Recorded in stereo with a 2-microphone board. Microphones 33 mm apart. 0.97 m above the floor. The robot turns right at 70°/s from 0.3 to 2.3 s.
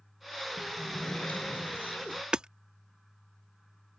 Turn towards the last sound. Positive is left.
turn(degrees=-30)  # may be behind; listen again after turning